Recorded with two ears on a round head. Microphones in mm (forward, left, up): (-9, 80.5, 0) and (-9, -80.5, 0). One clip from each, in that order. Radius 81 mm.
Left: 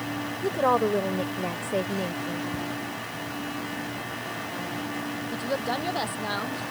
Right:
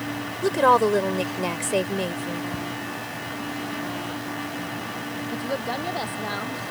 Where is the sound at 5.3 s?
15° left (ahead or behind).